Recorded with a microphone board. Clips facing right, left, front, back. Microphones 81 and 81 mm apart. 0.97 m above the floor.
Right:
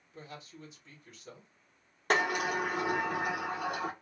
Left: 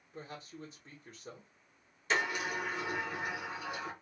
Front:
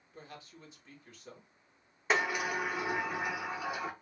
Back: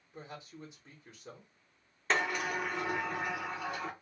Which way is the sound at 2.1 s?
80° right.